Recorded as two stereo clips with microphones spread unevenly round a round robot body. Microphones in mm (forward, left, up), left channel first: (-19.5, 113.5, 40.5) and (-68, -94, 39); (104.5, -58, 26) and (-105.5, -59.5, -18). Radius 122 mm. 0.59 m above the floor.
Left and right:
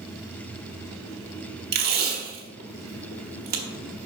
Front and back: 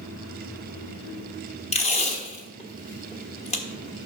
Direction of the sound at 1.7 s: 65° right.